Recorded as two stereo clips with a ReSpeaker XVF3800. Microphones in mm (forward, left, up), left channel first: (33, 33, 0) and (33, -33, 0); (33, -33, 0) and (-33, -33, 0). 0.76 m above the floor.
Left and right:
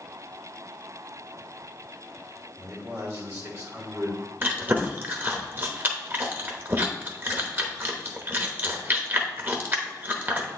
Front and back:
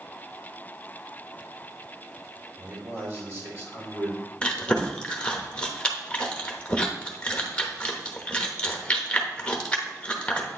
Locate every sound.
2.6 s a man speaking: 135° right, 3 m
4.4 s chewing: 65° right, 0.9 m